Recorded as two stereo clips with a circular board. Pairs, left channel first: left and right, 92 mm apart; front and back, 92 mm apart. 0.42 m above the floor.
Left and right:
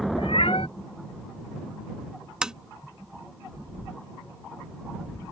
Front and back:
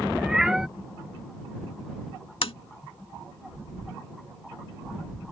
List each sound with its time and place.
0.2 s a cat meowing: 95° left
2.4 s tapping: 10° right